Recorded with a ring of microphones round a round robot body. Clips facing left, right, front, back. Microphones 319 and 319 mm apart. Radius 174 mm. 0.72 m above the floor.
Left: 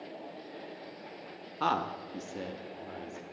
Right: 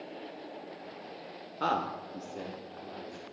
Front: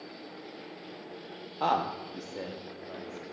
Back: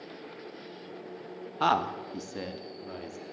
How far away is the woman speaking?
About 0.6 m.